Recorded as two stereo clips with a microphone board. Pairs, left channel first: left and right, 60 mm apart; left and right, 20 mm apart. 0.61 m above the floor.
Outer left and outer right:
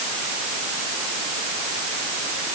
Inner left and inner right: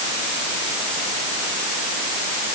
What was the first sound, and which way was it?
Only background noise.